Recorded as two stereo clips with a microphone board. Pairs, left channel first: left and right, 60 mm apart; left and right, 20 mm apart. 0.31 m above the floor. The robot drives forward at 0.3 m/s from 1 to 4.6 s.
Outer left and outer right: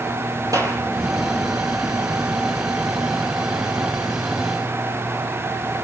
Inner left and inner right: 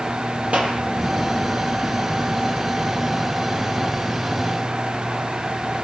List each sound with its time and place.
0.5 s a clap: 75° right (ahead or behind), 6.5 m